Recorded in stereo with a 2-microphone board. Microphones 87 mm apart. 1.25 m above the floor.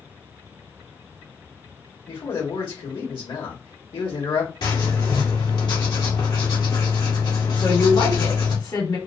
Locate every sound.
2.1 s a man speaking: 75° left (ahead or behind), 1.6 m
4.6 s writing: 60° left (ahead or behind), 1.6 m
7.6 s a woman speaking: 60° left (ahead or behind), 1.9 m